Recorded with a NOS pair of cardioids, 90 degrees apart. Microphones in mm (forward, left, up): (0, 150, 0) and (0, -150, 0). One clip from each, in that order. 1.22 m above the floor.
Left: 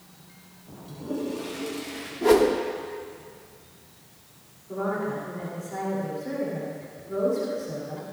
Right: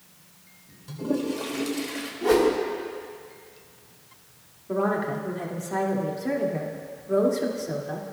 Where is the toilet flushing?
50° right, 2.5 m.